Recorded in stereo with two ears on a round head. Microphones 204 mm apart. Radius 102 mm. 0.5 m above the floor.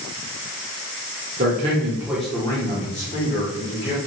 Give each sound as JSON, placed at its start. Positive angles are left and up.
{"t": 1.4, "sound": "a man speaking", "side_deg": -35, "distance_m": 0.9}